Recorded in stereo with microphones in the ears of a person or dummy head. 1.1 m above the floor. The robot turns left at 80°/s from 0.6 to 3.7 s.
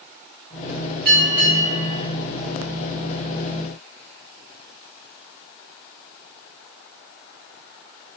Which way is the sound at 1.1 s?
125° right.